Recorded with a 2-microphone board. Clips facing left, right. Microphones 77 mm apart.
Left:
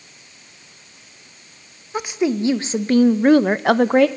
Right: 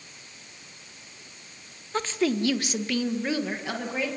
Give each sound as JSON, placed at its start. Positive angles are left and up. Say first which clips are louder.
{"t": 1.9, "sound": "a woman speaking", "louder": "left 5 dB", "side_deg": 10, "distance_m": 1.3}